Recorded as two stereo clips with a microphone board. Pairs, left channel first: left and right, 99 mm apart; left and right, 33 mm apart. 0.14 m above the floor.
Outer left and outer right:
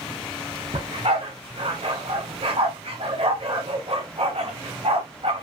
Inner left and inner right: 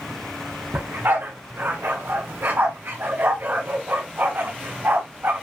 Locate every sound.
0.7 s a dog barking: 65° right (ahead or behind), 3.5 m